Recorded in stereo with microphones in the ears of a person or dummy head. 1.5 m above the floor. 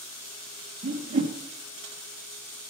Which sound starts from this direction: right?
A whoosh, at 0.8 s.